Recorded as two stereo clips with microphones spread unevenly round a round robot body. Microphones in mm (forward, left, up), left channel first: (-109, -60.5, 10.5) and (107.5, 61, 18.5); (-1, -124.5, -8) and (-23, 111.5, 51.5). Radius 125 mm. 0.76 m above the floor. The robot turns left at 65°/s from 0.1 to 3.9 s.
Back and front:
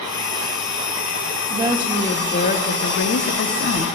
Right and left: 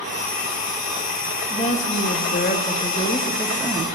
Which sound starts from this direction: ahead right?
A woman speaking, at 1.5 s.